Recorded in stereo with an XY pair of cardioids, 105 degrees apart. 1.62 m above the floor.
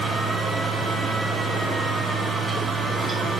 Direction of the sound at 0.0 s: 45° right.